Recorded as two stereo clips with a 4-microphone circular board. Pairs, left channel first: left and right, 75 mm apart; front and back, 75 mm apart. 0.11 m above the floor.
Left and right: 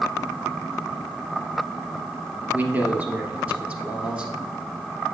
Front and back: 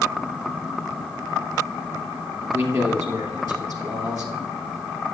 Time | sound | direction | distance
2.5 | a man speaking | 150° right | 2.5 m